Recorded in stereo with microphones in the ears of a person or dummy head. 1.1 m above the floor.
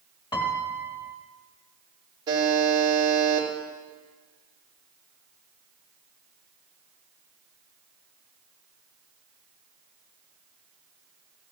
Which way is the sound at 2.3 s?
25° right (ahead or behind).